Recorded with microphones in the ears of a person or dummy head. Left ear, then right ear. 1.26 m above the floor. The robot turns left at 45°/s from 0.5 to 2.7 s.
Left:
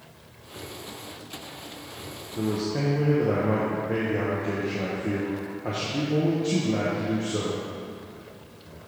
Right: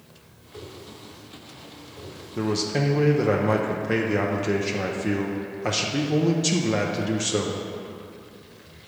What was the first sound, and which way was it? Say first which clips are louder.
A whoosh: left 2 dB; 70° right (ahead or behind).